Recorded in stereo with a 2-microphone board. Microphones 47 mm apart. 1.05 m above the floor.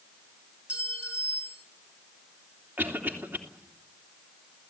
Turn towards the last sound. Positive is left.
turn(degrees=-50)  # may be behind; listen again after turning